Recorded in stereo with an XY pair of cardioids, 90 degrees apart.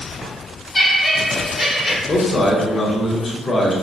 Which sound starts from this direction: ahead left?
A man speaking, at 2.1 s.